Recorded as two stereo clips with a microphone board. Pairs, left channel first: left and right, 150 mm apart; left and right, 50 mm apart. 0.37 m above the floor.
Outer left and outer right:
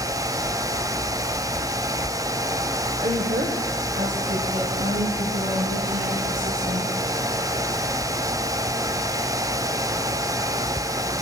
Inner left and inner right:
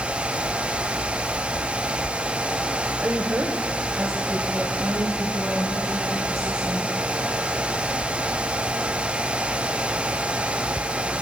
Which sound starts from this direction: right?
A woman speaking, at 3.0 s.